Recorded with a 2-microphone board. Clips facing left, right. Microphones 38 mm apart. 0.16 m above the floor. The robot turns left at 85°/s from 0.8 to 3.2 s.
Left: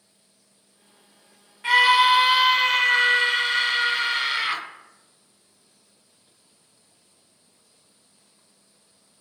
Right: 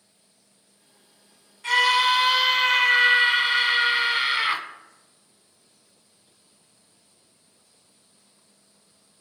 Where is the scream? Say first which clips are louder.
Left 3 dB; 20° left (ahead or behind), 1.3 m; by 4.6 s 15° right (ahead or behind), 1.3 m.